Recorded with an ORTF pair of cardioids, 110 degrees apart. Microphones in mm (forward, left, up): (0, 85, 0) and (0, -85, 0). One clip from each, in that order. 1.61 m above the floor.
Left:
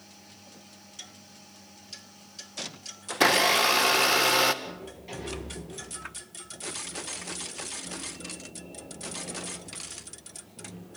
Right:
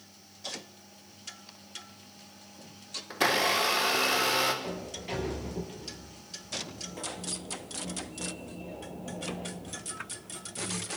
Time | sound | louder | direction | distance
3.1 | a blender | left 4 dB | 30° left | 2 m
4.6 | a sliding door | right 3 dB | 25° right | 6.5 m